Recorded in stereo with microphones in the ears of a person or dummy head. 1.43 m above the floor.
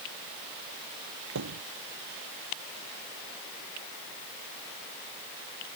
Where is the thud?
85° right.